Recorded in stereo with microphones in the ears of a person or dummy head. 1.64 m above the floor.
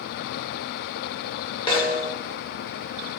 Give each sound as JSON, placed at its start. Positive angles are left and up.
{"t": 1.7, "sound": "a snare drum", "side_deg": 30, "distance_m": 7.0}